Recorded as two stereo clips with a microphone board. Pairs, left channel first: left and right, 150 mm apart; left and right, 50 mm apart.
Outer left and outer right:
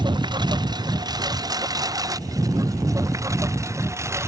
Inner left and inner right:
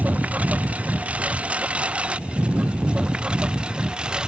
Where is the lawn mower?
30° right (ahead or behind); by 4.3 s 20° right (ahead or behind).